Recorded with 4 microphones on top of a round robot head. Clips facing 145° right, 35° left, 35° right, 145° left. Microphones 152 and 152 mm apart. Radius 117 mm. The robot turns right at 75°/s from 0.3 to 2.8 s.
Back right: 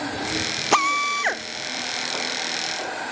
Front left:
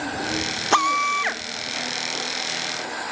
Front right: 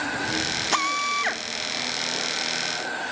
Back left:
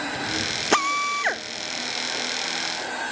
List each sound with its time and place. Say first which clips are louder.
0.7 s a drill: front left 1 dB, back left 5 dB; 135° left; by 1.4 s 170° right